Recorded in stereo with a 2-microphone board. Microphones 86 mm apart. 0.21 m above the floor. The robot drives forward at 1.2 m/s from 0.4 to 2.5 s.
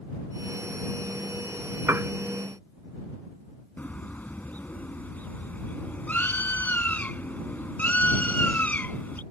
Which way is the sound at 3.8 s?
20° left (ahead or behind).